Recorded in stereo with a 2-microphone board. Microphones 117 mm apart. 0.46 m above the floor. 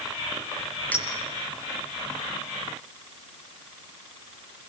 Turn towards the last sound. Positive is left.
turn(degrees=15)  # may be behind; listen again after turning